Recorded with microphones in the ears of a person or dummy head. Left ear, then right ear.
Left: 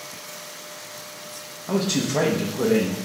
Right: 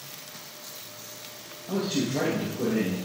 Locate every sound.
1.7 s a man speaking: 65° left (ahead or behind), 1.4 m